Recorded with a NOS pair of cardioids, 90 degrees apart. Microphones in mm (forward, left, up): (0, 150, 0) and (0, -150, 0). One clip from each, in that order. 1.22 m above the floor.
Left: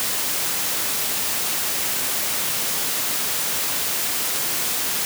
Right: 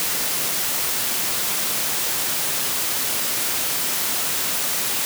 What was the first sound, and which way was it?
Only background noise.